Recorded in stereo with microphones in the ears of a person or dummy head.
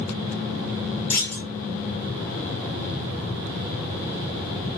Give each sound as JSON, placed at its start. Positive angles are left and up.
{"t": 1.1, "sound": "a clunk", "side_deg": 15, "distance_m": 1.3}